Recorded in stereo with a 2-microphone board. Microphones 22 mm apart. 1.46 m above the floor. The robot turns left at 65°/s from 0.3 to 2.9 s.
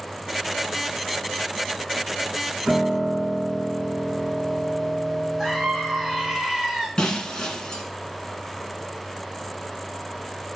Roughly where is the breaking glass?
Left.